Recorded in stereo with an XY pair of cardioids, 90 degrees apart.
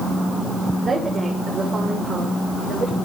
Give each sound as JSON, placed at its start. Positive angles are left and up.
{"t": 0.8, "sound": "a woman speaking", "azimuth_deg": -50, "distance_m": 5.5}